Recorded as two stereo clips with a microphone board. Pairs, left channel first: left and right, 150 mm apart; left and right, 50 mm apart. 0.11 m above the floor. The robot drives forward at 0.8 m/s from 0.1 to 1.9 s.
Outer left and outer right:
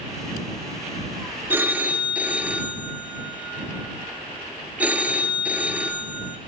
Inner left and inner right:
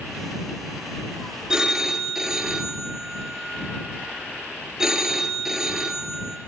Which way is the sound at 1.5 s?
15° right (ahead or behind).